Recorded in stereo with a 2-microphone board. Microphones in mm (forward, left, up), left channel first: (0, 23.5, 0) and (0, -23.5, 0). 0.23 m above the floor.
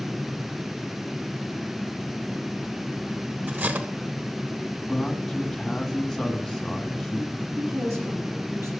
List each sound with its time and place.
3.5 s cutlery clinking: 40° right (ahead or behind), 1.1 m
4.9 s a man speaking: 5° left (ahead or behind), 1.8 m
7.6 s a woman speaking: 75° right (ahead or behind), 6.5 m